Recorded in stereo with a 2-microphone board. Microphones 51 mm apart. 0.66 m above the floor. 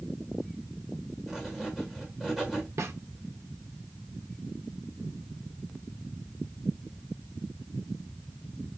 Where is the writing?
5° right (ahead or behind), 1.8 m.